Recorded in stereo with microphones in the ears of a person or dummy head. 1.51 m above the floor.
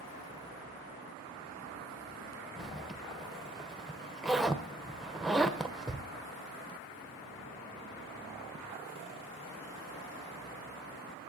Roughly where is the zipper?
Centre.